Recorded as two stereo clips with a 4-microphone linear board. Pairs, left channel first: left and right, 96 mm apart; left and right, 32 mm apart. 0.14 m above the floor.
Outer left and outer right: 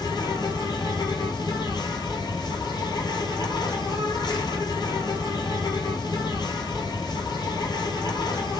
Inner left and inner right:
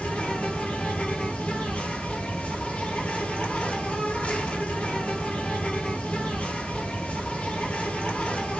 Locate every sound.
0.0 s an insect: 45° left (ahead or behind), 1.1 m